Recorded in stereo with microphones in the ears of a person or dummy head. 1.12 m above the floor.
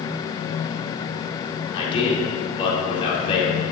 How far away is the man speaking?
About 3.5 m.